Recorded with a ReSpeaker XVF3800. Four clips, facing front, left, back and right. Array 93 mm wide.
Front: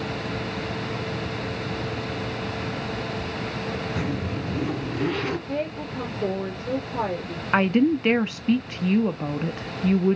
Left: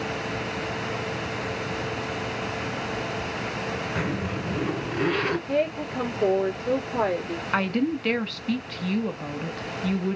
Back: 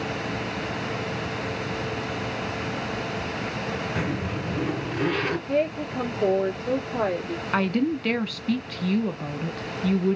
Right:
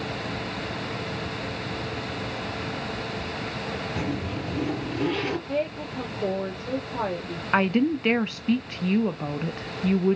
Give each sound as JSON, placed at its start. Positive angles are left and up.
{"t": 4.0, "sound": "a zipper", "azimuth_deg": 135, "distance_m": 2.5}
{"t": 5.5, "sound": "a woman speaking", "azimuth_deg": 135, "distance_m": 1.8}
{"t": 7.5, "sound": "a woman speaking", "azimuth_deg": -35, "distance_m": 0.6}